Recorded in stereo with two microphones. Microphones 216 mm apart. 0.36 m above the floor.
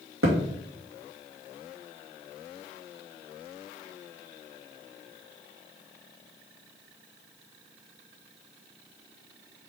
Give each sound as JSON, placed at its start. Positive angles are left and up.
{"t": 0.2, "sound": "a thud", "side_deg": -80, "distance_m": 2.5}